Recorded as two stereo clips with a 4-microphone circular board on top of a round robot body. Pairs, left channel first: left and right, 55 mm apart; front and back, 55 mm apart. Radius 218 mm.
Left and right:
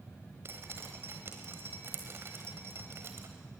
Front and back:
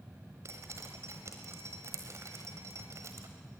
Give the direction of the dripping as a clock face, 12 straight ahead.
5 o'clock.